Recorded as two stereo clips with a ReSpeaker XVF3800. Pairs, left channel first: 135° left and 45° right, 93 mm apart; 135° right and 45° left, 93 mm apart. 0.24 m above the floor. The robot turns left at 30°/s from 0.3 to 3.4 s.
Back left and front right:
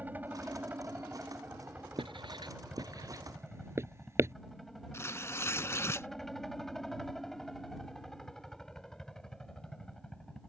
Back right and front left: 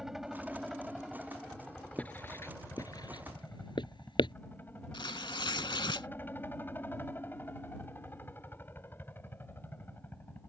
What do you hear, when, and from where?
0.0 s a helicopter: 35° right; by 10.5 s 155° right
2.0 s writing: 60° right; by 4.3 s 105° right
4.9 s tearing paper: 165° right